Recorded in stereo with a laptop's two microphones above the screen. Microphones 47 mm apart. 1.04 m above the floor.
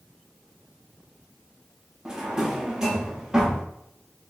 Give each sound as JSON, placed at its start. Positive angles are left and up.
{"t": 2.0, "sound": "a drawer", "side_deg": -10, "distance_m": 0.7}